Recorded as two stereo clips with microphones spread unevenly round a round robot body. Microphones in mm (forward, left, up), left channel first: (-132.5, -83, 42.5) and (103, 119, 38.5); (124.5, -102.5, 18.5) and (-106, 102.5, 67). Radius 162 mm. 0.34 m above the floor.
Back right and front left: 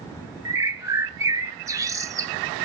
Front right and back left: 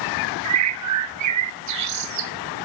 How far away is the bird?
About 0.9 m.